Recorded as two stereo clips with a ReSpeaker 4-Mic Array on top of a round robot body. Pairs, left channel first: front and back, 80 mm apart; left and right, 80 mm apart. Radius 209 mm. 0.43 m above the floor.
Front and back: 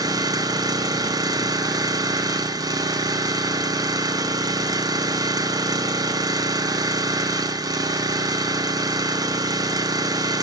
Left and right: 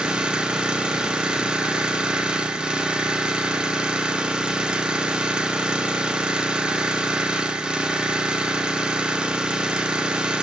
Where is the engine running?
170° right, 0.8 m.